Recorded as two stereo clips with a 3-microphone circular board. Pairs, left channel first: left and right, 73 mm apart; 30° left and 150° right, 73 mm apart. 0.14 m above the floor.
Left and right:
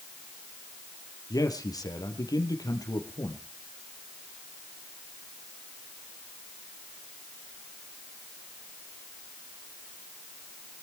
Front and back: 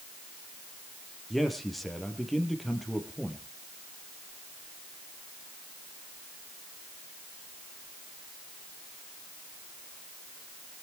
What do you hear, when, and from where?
1.3 s a man speaking: 120° left, 4 m